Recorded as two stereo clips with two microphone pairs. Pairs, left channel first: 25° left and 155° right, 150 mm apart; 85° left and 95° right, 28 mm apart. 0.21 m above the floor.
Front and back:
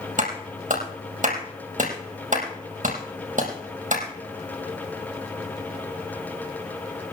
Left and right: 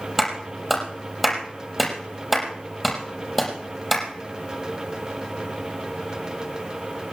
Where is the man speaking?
I don't hear a man speaking.